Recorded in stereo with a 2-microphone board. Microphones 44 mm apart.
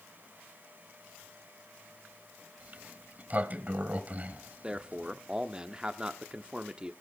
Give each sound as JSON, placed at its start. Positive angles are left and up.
{"t": 2.6, "sound": "a sliding door", "side_deg": -40, "distance_m": 1.0}
{"t": 4.6, "sound": "a man speaking", "side_deg": -20, "distance_m": 0.8}